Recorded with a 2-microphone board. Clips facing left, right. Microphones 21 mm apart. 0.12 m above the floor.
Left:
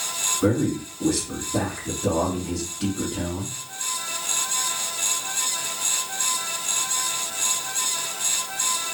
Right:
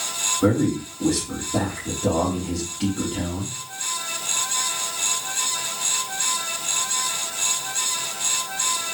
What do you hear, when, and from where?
0.4 s a man speaking: 65° right (ahead or behind), 4 m